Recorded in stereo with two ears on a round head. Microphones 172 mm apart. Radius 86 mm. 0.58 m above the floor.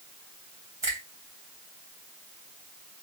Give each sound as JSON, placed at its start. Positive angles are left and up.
{"t": 0.8, "sound": "a finger snap", "side_deg": -15, "distance_m": 2.0}